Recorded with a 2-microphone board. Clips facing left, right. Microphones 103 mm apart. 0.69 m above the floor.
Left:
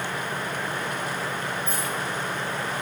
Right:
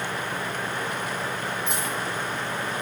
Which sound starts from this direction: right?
A dropped coin, at 1.7 s.